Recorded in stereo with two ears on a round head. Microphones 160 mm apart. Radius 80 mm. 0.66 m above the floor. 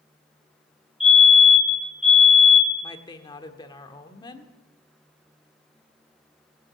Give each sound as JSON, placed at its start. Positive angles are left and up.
{"t": 1.0, "sound": "a fire alarm", "side_deg": -5, "distance_m": 5.0}
{"t": 2.8, "sound": "a woman speaking", "side_deg": 25, "distance_m": 1.3}